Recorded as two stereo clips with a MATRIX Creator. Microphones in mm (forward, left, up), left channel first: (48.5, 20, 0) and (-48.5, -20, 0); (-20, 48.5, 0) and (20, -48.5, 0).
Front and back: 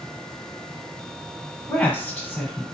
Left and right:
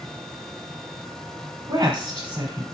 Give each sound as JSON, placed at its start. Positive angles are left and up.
{"t": 1.7, "sound": "a woman speaking", "azimuth_deg": -45, "distance_m": 1.3}